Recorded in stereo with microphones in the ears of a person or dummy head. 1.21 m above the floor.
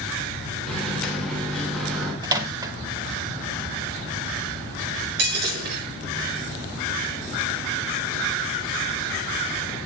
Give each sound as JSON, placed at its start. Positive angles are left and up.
{"t": 0.7, "sound": "a microwave", "side_deg": 5, "distance_m": 3.0}
{"t": 2.2, "sound": "a microwave", "side_deg": -15, "distance_m": 0.9}
{"t": 5.2, "sound": "breaking glass", "side_deg": -60, "distance_m": 7.0}